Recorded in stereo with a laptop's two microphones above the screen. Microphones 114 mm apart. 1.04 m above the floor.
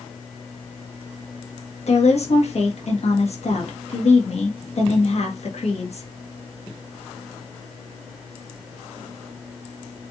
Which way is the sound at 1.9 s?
60° left (ahead or behind).